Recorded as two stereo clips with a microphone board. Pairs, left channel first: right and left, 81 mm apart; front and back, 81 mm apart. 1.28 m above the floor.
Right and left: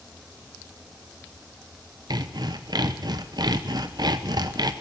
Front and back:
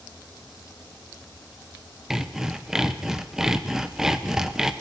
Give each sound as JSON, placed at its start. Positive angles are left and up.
{"t": 2.1, "sound": "sawing", "azimuth_deg": 100, "distance_m": 0.7}